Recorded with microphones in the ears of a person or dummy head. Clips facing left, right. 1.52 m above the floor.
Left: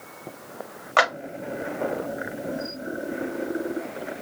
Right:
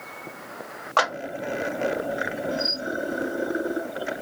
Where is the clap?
25° left (ahead or behind), 1.8 m.